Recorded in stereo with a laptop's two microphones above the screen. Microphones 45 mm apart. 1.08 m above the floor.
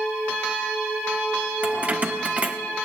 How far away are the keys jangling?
About 0.7 m.